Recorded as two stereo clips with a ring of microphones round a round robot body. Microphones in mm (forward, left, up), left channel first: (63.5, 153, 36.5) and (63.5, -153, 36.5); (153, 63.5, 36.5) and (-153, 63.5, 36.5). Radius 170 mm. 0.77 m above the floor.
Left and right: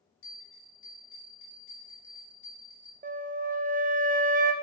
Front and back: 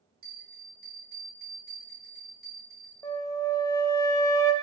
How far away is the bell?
About 3.5 m.